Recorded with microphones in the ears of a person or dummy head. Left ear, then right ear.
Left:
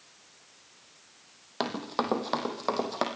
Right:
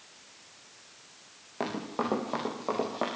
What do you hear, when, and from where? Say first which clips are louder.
1.6 s running footsteps: left 2 dB; 60° left (ahead or behind), 4 m; by 3.0 s 70° left (ahead or behind), 5 m